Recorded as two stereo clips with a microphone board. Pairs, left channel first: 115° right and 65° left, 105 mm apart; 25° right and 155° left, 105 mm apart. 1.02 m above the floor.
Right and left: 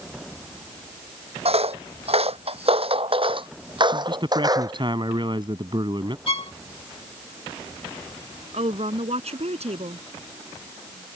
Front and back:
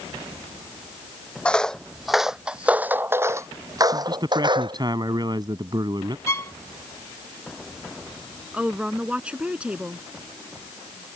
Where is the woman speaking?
80° left.